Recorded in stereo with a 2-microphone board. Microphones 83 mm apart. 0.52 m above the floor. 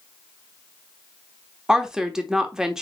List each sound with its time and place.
1.7 s a woman speaking: 5° right (ahead or behind), 1.0 m